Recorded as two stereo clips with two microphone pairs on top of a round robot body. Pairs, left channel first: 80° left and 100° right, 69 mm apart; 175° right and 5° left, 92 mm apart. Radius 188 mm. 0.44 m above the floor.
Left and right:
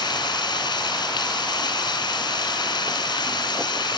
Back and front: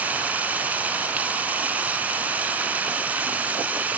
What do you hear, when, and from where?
0.0 s running water: 75° left, 2 m